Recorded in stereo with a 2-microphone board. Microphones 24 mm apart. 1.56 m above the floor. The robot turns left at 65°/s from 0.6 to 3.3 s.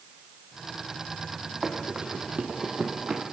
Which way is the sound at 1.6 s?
20° right (ahead or behind).